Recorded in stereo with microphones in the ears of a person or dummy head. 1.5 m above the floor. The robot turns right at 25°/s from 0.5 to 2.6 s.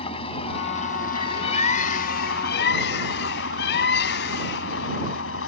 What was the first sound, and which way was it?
An engine running, 35° left.